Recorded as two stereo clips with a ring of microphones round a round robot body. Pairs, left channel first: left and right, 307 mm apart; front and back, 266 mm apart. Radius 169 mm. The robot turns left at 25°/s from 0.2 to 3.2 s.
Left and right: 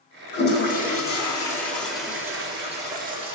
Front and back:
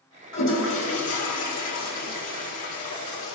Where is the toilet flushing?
40° left, 1.5 m; by 3.4 s 30° right, 1.5 m.